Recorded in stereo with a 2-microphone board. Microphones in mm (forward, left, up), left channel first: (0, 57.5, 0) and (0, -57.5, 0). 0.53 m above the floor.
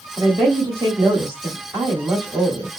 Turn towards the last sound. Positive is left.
turn(degrees=-30)  # may be behind; listen again after turning